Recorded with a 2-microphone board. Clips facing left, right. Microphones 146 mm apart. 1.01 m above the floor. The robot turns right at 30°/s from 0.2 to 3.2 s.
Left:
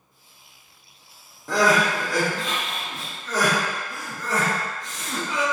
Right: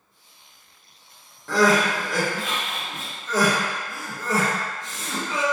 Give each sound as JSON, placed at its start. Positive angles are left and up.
{"t": 1.5, "sound": "crying", "side_deg": 15, "distance_m": 1.1}